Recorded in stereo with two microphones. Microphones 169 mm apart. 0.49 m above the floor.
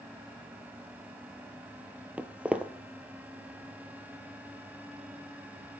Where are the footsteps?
5° right (ahead or behind), 0.6 m.